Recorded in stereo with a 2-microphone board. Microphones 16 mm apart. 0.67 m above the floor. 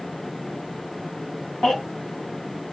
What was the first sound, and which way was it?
A baby crying, 75° left (ahead or behind).